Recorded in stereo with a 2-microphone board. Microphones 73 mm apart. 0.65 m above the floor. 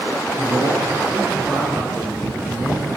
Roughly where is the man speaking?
Right.